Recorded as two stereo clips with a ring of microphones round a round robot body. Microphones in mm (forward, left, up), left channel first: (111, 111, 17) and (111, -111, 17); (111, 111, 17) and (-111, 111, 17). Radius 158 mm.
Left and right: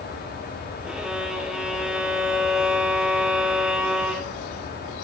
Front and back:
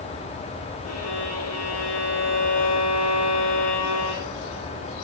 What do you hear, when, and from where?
0.8 s a violin: 5° right, 4 m